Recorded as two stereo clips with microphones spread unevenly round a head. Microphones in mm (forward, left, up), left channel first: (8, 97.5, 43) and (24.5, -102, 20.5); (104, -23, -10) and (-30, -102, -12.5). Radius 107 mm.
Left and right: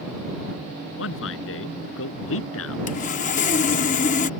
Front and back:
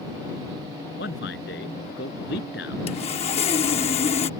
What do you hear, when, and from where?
1.0 s a man speaking: 70° left; by 2.8 s 75° left
2.9 s sawing: 65° left